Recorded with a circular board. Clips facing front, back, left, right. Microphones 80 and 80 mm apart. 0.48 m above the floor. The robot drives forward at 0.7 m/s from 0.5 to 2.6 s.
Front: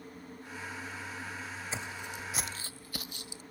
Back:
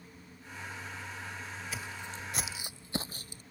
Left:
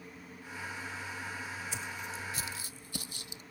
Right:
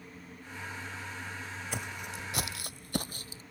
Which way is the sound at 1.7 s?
60° right.